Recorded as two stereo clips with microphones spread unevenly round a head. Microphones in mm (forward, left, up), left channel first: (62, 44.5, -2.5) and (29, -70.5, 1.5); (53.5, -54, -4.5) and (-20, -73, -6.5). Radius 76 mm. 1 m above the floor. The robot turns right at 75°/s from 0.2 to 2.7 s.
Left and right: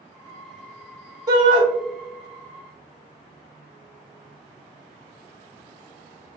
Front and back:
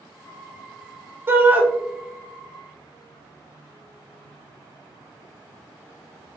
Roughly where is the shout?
Behind right.